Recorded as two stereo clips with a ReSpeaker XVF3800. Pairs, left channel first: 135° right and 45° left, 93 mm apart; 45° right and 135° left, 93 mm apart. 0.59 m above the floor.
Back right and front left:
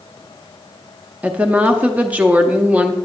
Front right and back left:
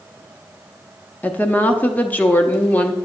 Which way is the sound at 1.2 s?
5° right.